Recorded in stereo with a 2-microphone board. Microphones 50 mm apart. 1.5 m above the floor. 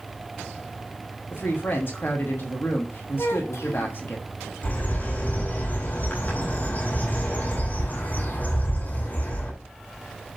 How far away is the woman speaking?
About 1.4 m.